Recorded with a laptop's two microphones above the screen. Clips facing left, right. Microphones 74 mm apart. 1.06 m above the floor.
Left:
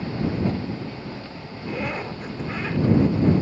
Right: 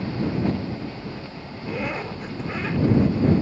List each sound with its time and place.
1.6 s a zipper: centre (ahead or behind)